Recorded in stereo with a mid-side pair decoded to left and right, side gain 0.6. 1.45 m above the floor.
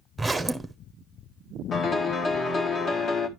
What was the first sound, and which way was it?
A zipper, 10° right.